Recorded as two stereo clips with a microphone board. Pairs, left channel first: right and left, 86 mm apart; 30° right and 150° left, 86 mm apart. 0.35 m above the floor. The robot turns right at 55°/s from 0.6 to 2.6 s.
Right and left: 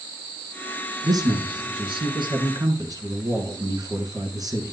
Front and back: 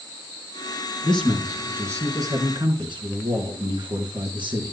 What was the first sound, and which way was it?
A man speaking, 45° left.